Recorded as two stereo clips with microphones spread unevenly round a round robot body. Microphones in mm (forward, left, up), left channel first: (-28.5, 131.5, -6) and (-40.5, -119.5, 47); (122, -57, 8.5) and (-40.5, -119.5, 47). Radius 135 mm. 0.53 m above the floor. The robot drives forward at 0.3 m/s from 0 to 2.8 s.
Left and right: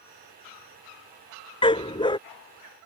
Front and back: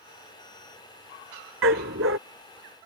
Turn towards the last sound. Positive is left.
turn(degrees=160)